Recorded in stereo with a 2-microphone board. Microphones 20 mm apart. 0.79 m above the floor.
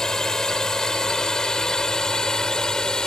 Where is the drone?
35° left (ahead or behind); by 3.1 s 40° left (ahead or behind).